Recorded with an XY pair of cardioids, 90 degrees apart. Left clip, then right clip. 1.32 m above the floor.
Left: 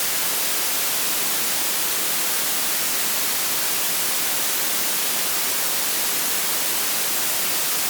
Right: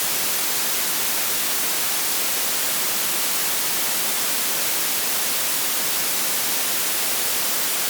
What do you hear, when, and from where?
Only background noise.